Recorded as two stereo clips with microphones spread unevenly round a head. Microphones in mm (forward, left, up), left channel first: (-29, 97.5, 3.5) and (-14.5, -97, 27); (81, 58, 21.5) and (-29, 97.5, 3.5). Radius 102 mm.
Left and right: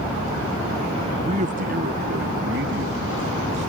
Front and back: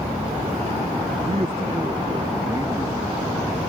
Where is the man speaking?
145° right; by 3.7 s 115° right.